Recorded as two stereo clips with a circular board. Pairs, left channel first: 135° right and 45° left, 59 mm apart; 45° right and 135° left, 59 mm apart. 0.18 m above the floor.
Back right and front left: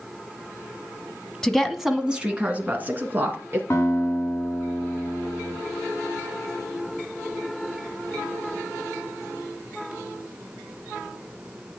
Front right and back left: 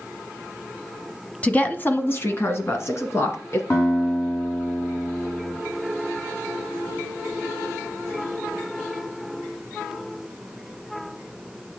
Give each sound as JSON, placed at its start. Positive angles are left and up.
{"t": 1.4, "sound": "a woman speaking", "azimuth_deg": -70, "distance_m": 1.1}
{"t": 3.7, "sound": "a guitar", "azimuth_deg": -80, "distance_m": 6.5}